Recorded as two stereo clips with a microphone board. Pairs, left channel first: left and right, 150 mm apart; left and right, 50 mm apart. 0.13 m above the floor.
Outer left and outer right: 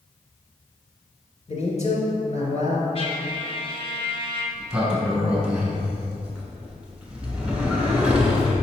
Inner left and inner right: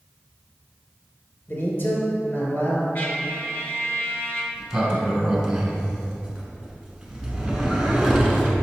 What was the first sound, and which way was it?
A man speaking, 50° left (ahead or behind).